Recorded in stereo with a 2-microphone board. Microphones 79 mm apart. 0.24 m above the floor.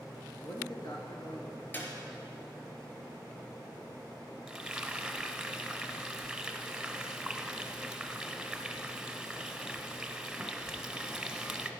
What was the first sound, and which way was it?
A man speaking, 55° left (ahead or behind).